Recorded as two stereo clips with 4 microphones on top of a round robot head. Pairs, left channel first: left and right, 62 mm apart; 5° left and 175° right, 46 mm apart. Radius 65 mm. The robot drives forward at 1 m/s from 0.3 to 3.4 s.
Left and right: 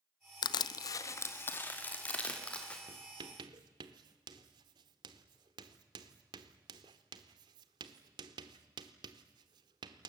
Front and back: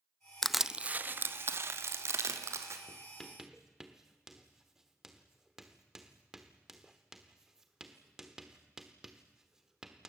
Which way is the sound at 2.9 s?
60° right.